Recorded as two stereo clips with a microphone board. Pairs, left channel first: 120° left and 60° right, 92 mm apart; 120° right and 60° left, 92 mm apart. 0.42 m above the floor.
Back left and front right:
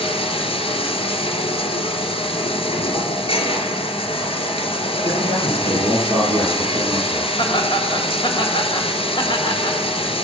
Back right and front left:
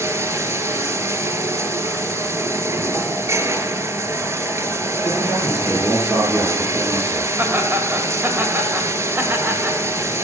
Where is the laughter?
125° left, 1.8 m.